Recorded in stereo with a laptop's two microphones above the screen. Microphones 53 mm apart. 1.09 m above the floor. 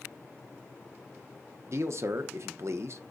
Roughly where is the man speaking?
Right.